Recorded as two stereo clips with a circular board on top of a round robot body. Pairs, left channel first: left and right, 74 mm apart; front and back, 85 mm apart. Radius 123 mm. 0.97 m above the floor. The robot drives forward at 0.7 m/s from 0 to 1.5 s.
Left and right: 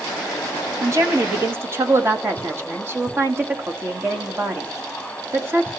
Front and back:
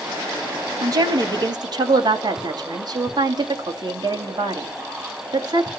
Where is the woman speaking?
135° right, 2 m; by 5.7 s 145° right, 2.5 m.